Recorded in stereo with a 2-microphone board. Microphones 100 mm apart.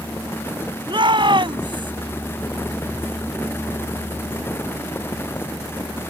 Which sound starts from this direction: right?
A shout, at 0.9 s.